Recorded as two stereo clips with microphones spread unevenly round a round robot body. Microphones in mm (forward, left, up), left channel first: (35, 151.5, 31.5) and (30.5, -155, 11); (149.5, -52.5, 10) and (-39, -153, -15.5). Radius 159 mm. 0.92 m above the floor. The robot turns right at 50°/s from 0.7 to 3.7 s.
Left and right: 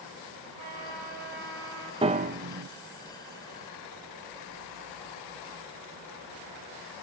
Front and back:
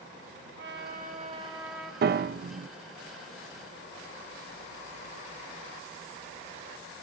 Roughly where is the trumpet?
Behind right.